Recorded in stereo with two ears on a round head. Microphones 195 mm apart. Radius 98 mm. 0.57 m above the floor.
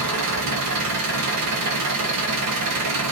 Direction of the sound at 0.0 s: 85° right.